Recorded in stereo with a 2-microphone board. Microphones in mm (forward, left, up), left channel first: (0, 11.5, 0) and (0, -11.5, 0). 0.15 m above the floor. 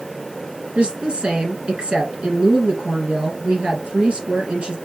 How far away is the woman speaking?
About 3 m.